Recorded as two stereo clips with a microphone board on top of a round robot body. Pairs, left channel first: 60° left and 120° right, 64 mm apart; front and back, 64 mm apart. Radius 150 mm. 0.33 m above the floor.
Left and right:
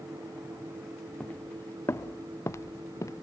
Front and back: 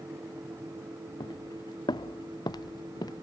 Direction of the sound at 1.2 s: 10° right.